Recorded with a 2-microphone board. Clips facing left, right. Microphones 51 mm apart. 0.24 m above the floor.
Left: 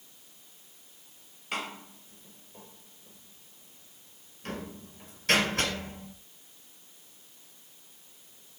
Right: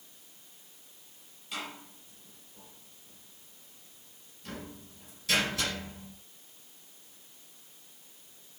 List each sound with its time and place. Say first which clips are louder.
1.5 s a door slam: left 4 dB; 50° left (ahead or behind), 4.5 m